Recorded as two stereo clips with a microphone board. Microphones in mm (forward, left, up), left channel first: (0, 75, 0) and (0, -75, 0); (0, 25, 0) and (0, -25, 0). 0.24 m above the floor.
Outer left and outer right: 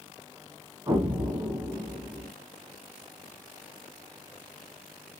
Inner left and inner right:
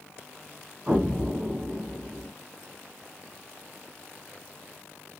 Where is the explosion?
30° right (ahead or behind), 1.3 m.